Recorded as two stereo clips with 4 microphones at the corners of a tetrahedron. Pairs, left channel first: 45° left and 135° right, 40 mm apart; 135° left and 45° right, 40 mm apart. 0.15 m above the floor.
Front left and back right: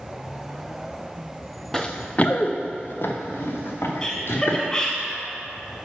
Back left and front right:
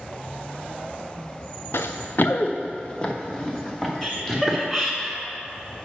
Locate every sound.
1.7 s running footsteps: 125° left, 0.7 m; by 4.6 s 50° left, 2.5 m
4.0 s laughter: 55° left, 1.3 m